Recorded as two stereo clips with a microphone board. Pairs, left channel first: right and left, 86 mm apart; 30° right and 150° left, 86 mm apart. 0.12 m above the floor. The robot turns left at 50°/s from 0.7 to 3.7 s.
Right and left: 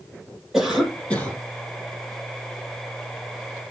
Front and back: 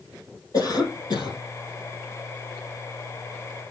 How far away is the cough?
About 3.5 m.